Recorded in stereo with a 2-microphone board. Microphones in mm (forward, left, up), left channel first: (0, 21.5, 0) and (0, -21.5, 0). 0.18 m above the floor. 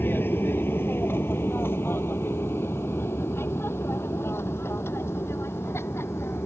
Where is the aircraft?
60° left (ahead or behind); by 6.5 s 80° left.